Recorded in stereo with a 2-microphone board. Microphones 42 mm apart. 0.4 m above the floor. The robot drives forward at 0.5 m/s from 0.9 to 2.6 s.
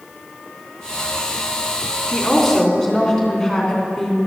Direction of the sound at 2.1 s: 5° left (ahead or behind).